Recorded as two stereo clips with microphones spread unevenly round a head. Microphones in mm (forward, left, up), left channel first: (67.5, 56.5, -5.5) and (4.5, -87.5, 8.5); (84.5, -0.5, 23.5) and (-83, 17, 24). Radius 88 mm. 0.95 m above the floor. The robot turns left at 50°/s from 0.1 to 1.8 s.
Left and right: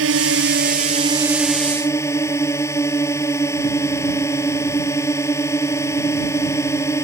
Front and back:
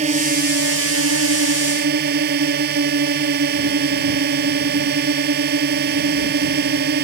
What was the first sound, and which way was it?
A drone, 130° right.